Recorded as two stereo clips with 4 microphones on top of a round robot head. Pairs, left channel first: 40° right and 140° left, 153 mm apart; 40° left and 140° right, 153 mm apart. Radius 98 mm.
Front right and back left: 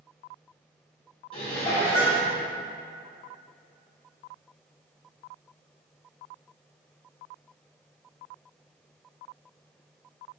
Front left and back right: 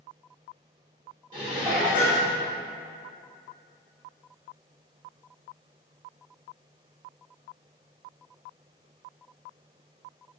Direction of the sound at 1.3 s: 90° right.